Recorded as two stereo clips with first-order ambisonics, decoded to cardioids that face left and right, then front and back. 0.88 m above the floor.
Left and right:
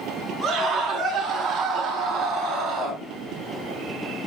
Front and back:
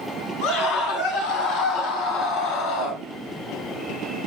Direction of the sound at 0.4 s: 15° right.